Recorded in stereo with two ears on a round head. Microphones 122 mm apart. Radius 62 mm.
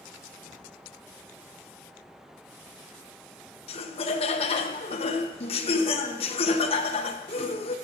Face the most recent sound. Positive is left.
turn(degrees=45)  # may be behind; listen again after turning